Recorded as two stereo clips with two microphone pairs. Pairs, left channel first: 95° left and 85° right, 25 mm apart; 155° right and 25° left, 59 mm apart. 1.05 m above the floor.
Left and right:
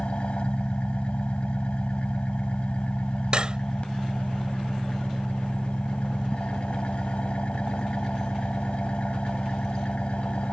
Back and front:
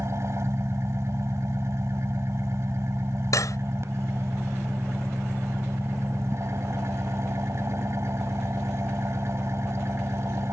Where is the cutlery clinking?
135° right.